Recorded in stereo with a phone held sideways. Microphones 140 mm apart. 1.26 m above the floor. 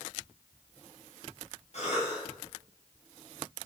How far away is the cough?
About 9 m.